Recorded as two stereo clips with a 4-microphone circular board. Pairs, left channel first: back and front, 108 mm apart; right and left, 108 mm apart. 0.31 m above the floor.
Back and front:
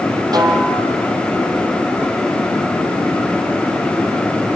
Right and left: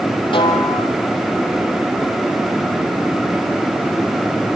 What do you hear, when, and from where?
0.3 s a snare drum: 50° right, 5.5 m